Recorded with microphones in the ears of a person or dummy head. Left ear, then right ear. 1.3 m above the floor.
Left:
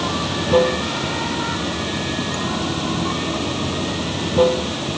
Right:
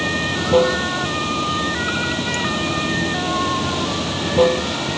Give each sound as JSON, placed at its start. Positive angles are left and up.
{"t": 0.0, "sound": "running water", "side_deg": 5}